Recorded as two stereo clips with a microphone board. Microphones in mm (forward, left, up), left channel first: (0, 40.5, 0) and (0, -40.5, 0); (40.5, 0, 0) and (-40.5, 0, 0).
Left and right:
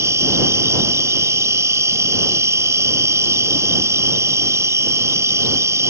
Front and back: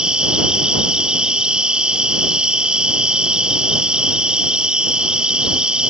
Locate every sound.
0.0 s an insect: 105° right